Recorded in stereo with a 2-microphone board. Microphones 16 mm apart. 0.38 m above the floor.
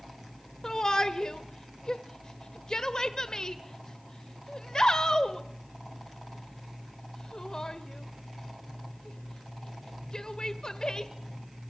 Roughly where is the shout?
Left.